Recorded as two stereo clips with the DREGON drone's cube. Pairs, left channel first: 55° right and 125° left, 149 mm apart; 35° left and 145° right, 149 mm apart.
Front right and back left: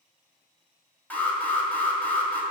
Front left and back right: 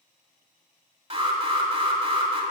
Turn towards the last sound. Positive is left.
turn(degrees=-130)